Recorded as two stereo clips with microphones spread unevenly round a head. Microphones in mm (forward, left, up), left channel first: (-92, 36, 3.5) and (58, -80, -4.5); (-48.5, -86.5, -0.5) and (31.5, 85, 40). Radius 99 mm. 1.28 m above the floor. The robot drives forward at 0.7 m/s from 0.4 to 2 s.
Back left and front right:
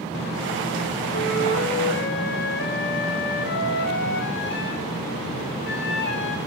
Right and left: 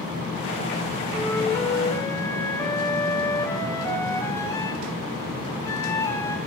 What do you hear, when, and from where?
1.1 s a flute: 170° left, 3.5 m